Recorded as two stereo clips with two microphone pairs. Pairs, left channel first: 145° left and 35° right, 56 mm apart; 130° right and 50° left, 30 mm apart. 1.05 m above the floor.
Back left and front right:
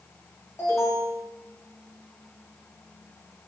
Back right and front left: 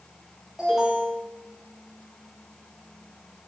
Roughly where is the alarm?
Behind left.